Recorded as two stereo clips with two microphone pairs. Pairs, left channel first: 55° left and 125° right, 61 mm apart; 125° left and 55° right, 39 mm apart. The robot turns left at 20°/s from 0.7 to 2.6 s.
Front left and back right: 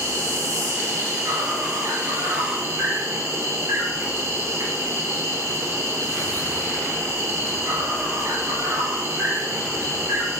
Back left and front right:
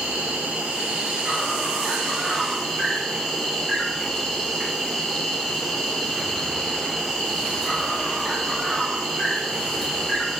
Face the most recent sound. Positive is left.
turn(degrees=-140)